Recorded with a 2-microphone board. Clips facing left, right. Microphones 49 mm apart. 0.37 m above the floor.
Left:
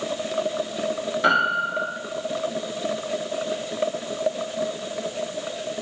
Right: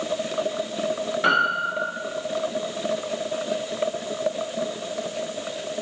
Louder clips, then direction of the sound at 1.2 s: Left 1 dB; centre (ahead or behind).